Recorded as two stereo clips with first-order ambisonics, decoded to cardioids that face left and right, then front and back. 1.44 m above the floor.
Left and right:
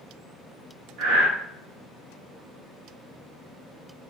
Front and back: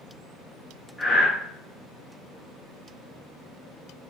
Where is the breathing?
80° right, 1.0 m.